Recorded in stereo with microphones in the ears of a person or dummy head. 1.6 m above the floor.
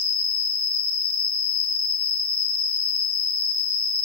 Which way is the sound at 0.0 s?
15° left (ahead or behind).